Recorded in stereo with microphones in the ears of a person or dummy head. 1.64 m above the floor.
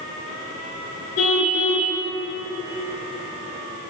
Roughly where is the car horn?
Left.